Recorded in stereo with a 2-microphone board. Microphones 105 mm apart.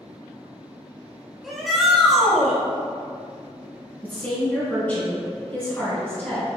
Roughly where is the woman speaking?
Centre.